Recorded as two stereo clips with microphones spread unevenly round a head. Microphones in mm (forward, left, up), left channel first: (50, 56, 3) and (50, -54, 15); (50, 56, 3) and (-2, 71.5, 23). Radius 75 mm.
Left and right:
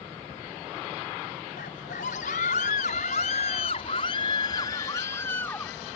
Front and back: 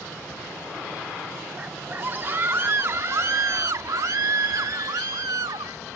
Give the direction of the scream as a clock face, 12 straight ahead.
8 o'clock.